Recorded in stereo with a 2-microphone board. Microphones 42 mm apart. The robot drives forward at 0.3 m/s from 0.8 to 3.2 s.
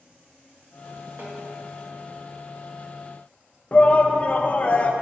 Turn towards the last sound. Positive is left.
turn(degrees=30)  # may be behind; listen again after turning